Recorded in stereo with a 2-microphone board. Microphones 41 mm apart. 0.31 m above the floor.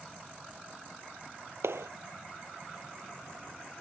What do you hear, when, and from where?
1.6 s a clap: 80° right